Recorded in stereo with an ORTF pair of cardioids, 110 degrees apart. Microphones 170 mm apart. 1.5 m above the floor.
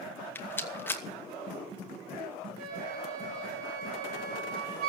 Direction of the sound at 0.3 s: 10° left.